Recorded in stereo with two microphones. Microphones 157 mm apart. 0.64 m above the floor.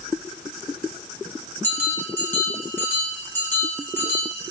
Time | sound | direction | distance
1.6 | a bell | 15° left (ahead or behind) | 1.4 m